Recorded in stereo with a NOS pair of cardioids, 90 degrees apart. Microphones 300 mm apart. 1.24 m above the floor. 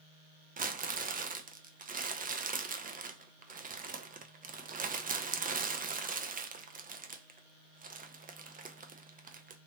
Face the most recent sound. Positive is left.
turn(degrees=-25)